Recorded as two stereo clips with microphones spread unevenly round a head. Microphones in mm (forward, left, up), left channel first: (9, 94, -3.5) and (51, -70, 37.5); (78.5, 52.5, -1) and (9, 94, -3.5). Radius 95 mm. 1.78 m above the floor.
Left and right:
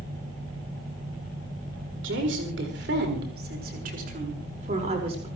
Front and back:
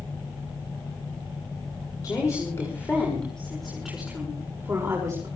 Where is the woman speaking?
100° right, 6 m; by 5.3 s 140° right, 5.5 m.